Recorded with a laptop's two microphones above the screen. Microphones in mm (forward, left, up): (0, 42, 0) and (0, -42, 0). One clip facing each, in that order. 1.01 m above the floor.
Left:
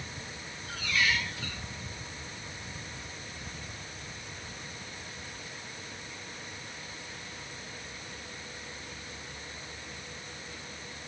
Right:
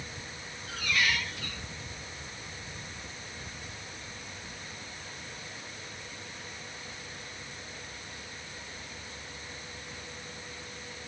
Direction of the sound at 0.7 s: 55° right (ahead or behind).